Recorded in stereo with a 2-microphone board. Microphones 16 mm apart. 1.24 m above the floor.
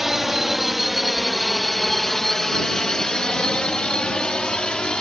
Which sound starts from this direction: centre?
A drone, at 0.0 s.